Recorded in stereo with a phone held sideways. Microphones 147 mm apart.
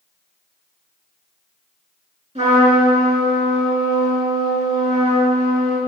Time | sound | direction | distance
2.4 | a trumpet | 45° right (ahead or behind) | 6 m